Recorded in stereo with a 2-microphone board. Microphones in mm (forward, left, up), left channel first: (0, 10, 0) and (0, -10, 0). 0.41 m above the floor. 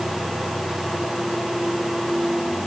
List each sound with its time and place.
Only background noise.